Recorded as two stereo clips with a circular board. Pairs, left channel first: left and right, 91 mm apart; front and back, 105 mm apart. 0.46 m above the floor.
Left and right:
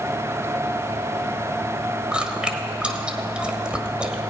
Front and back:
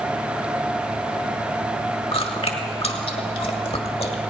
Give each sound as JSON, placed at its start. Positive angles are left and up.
{"t": 2.1, "sound": "chewing", "azimuth_deg": -10, "distance_m": 1.5}